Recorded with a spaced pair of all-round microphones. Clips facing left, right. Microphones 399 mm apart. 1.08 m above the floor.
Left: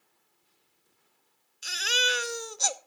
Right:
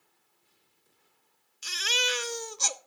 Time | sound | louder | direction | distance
1.6 | a baby crying | left 1 dB | 15° right (ahead or behind) | 0.6 m